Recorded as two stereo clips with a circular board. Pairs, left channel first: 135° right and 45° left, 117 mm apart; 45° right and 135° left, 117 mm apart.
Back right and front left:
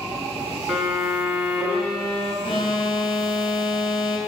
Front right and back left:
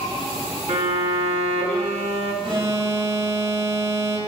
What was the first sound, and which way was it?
A violin, 135° left.